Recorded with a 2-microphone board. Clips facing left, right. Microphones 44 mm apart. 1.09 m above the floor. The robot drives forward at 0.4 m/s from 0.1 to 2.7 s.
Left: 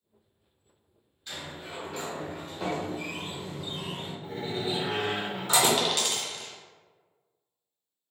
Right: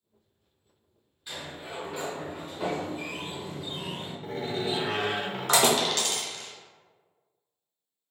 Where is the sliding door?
15° right (ahead or behind), 0.8 m; by 4.1 s 10° right (ahead or behind), 1.3 m.